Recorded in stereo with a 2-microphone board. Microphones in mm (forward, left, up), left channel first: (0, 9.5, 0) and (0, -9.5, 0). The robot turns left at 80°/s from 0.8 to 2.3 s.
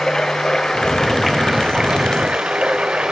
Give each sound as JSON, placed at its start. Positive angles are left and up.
{"t": 0.0, "sound": "running water", "azimuth_deg": 40, "distance_m": 1.9}